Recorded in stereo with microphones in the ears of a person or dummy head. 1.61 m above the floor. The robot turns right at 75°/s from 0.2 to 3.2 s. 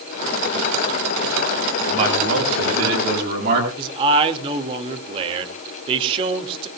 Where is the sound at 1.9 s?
150° right, 8 m; by 3.7 s 50° right, 8 m.